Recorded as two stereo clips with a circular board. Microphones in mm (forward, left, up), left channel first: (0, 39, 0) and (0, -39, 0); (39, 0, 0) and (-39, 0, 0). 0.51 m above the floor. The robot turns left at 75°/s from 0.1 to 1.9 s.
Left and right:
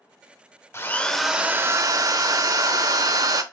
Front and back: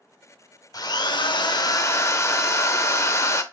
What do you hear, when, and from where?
0.7 s a drill: 35° left, 0.7 m; by 3.4 s 50° right, 0.7 m